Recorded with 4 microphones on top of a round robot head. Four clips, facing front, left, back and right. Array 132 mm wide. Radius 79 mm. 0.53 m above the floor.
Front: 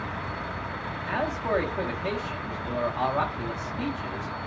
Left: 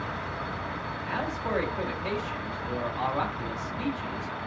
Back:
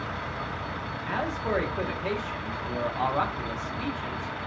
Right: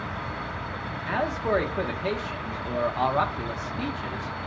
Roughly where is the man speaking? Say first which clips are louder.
Right 6 dB, front 2 dB; right.